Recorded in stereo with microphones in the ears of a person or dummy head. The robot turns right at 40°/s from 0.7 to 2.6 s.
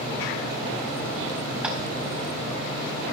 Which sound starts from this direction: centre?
Tapping, at 1.6 s.